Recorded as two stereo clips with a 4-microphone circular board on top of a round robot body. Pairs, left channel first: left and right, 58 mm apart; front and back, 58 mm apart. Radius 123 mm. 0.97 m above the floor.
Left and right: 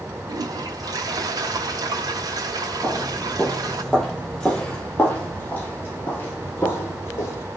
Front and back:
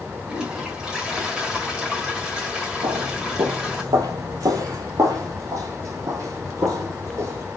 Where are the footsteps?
170° right, 1.8 m; by 7.4 s 140° left, 3 m.